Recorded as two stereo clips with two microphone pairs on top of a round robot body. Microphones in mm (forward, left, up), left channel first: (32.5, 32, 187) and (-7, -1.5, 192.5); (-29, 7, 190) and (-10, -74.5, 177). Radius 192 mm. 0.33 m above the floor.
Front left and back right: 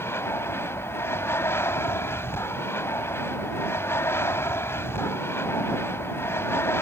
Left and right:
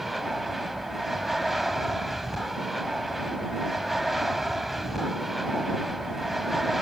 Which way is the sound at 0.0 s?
10° left.